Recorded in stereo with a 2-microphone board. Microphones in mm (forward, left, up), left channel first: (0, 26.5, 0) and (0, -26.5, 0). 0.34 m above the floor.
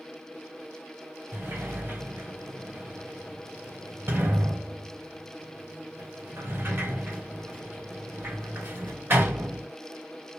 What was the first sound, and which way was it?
A sliding door, 40° right (ahead or behind).